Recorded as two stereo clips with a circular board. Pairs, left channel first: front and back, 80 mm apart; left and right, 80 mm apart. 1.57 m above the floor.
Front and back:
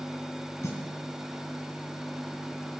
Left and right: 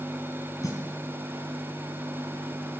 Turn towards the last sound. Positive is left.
turn(degrees=50)